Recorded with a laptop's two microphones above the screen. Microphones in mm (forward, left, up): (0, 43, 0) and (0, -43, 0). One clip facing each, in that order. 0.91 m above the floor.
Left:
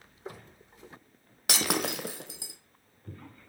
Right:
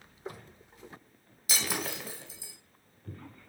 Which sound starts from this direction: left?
Breaking glass, at 1.5 s.